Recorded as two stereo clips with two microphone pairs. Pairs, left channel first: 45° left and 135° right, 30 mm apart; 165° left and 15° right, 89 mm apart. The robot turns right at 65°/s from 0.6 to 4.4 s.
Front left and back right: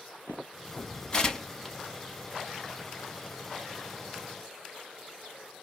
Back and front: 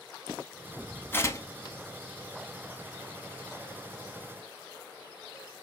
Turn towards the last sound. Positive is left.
turn(degrees=-45)